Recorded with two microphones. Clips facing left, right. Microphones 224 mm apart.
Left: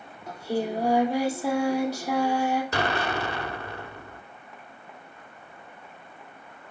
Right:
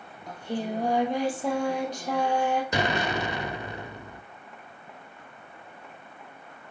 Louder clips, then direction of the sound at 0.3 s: Left 3 dB; 10° left (ahead or behind).